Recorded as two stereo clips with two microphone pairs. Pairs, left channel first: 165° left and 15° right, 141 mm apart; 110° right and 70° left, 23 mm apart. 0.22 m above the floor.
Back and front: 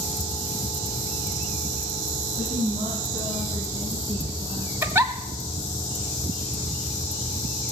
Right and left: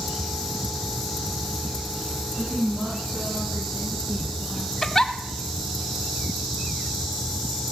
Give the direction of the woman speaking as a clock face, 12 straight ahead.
11 o'clock.